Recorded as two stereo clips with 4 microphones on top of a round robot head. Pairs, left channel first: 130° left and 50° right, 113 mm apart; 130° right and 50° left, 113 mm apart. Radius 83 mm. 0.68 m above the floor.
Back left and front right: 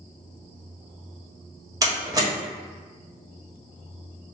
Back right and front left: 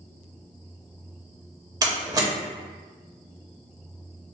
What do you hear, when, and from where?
1.8 s a door slam: straight ahead, 1.2 m